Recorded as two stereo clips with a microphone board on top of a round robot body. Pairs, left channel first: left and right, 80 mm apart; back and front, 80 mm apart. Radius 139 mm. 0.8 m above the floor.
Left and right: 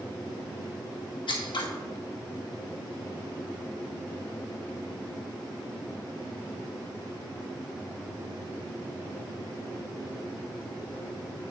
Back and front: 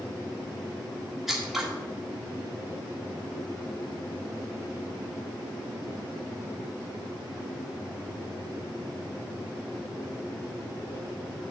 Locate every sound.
1.3 s scissors: 90° left, 1.8 m